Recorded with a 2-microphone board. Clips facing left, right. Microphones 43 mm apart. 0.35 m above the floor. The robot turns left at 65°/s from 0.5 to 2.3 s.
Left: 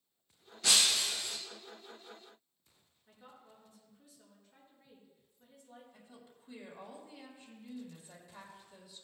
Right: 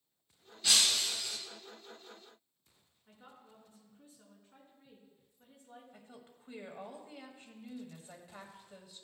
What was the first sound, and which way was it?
Breaking glass, 105° left.